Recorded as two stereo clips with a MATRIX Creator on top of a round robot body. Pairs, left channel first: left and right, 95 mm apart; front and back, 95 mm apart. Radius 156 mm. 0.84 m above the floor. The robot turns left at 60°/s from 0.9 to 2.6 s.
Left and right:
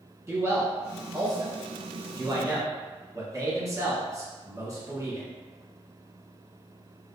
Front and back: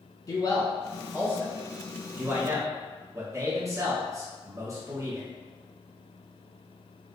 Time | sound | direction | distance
0.3 | a man speaking | 20° right | 1.3 m